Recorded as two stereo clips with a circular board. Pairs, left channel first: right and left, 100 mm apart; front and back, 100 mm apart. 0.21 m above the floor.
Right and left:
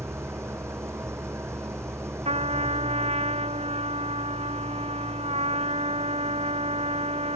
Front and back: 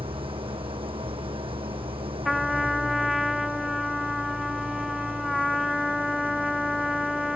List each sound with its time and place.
0.0 s an engine running: 155° left
2.2 s a trumpet: 90° left